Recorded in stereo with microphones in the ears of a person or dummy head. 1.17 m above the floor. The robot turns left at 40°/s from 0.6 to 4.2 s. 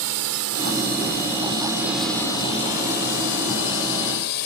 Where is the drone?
75° right (ahead or behind); by 4.5 s 55° left (ahead or behind).